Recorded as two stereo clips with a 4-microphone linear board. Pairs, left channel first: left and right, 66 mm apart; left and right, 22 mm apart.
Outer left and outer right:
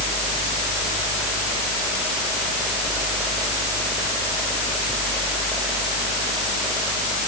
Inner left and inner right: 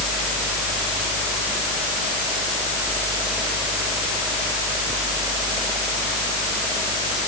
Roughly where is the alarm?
No alarm in this recording.